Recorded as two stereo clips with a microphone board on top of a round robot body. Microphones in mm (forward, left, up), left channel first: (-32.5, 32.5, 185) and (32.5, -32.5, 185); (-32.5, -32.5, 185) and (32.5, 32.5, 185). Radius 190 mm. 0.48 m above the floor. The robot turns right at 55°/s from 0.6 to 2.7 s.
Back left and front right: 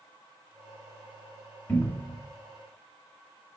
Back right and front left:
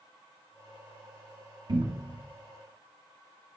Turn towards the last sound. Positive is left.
turn(degrees=125)